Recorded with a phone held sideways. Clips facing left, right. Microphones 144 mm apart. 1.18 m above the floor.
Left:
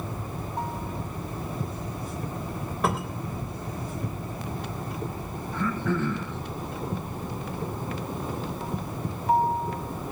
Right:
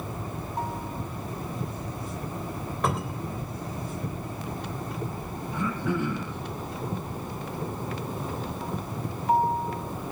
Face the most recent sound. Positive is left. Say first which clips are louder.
# left 1 dB
turn(degrees=-15)  # may be behind; listen again after turning